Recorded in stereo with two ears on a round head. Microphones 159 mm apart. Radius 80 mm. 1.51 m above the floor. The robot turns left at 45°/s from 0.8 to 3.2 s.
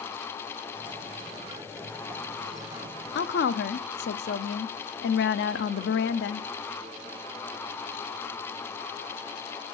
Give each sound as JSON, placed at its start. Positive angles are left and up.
{"t": 3.1, "sound": "a woman speaking", "side_deg": 65, "distance_m": 0.6}